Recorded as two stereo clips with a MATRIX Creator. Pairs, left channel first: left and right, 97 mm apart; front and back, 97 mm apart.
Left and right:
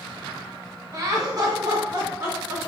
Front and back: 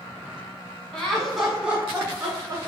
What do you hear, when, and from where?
0.9 s laughter: 75° right, 1.4 m; by 2.6 s 130° right, 1.8 m